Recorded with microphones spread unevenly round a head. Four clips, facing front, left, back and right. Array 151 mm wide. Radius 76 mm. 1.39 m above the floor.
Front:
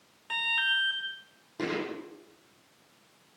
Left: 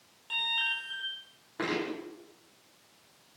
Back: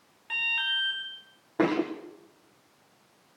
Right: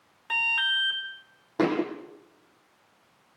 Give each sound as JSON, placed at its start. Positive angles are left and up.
{"t": 0.3, "sound": "an alarm", "azimuth_deg": -75, "distance_m": 3.0}
{"t": 1.6, "sound": "a thud", "azimuth_deg": -140, "distance_m": 4.5}